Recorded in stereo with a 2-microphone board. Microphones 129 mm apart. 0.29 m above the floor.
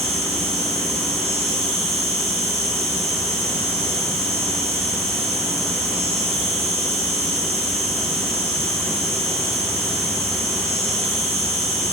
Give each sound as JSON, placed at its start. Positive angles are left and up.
{"t": 0.0, "sound": "an insect", "side_deg": -50, "distance_m": 2.5}